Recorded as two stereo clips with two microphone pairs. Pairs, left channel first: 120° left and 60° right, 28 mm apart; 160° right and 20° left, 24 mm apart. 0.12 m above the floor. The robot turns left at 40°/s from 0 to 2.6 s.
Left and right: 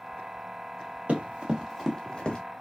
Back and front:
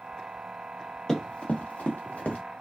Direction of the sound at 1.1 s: 90° right.